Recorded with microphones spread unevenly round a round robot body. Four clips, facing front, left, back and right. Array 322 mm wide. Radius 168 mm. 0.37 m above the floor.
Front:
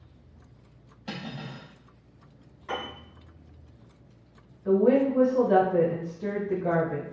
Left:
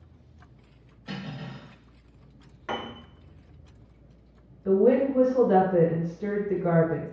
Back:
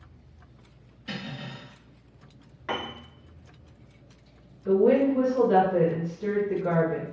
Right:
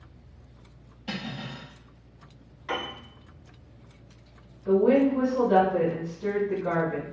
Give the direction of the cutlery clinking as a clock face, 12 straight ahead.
1 o'clock.